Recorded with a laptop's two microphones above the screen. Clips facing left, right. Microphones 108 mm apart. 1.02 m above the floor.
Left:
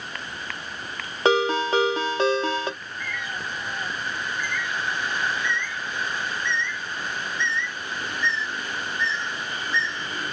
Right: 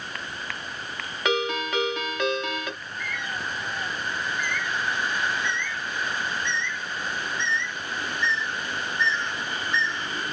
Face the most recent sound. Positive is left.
turn(degrees=-70)  # may be behind; listen again after turning